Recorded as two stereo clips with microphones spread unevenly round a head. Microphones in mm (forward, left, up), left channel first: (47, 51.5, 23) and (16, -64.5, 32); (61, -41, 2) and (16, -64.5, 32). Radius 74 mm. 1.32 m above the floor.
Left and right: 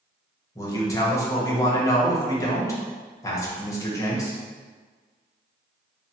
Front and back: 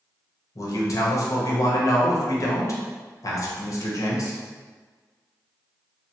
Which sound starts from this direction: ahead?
A man speaking, at 0.6 s.